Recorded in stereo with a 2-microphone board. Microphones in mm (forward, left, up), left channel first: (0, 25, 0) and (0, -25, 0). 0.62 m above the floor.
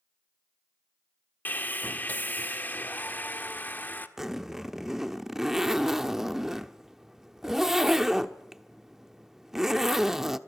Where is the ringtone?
I don't hear a ringtone.